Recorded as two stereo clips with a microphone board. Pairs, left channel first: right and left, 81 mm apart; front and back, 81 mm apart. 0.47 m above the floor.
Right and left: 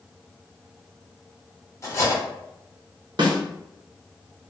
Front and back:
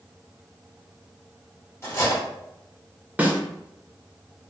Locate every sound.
1.8 s cutlery clinking: 50° right, 0.9 m
3.2 s a snare drum: 110° left, 0.6 m